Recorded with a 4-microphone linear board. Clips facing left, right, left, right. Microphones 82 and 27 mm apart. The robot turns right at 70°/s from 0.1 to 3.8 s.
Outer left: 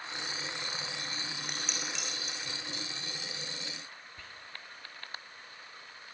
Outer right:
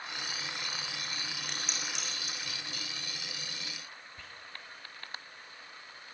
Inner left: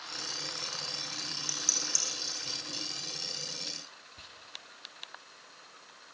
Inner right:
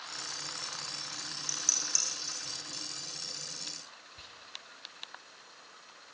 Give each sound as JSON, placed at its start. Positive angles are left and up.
{"t": 1.5, "sound": "dishes clattering", "side_deg": 10, "distance_m": 6.0}
{"t": 4.2, "sound": "whispering", "side_deg": 0, "distance_m": 3.0}